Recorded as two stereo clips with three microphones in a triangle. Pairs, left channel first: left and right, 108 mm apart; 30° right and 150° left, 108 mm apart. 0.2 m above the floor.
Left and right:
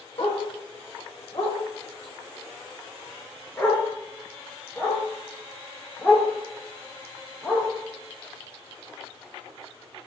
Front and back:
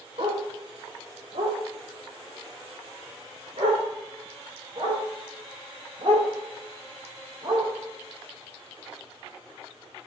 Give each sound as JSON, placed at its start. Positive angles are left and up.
{"t": 0.2, "sound": "a dog barking", "azimuth_deg": 130, "distance_m": 3.5}